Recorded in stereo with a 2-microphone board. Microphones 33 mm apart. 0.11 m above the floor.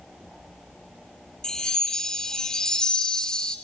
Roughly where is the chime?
Left.